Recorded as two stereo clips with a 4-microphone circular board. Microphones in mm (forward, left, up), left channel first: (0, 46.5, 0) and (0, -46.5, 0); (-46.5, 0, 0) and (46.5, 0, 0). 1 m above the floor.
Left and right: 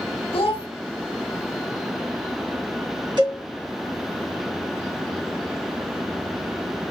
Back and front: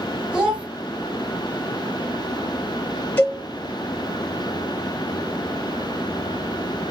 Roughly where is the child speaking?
Left.